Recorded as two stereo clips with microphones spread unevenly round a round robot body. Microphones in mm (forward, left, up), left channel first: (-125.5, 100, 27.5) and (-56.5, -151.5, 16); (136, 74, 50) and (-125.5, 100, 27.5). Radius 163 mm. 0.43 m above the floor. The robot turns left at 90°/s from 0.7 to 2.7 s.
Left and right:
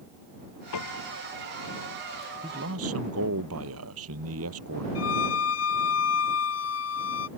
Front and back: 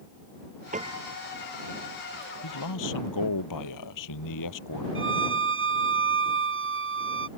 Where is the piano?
115° left; by 1.2 s 70° left.